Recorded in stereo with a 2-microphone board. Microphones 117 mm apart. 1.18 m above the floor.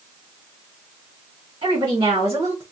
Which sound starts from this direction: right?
A woman speaking, at 1.6 s.